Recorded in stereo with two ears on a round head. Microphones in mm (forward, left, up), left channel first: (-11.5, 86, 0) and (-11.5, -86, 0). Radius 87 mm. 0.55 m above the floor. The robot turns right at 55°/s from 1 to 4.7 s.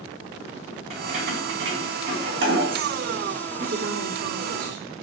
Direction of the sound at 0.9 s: 35° right (ahead or behind).